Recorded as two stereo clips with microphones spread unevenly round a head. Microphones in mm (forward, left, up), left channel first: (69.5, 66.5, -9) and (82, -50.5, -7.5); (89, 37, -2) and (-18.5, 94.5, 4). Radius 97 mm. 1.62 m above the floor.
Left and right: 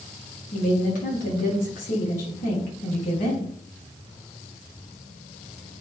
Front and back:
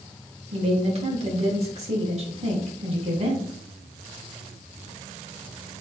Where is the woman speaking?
120° left, 3.5 m.